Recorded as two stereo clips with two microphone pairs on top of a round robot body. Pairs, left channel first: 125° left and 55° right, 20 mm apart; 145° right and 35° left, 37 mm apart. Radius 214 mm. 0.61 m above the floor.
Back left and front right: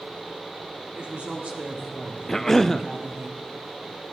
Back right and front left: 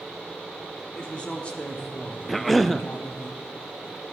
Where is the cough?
140° left, 0.6 m.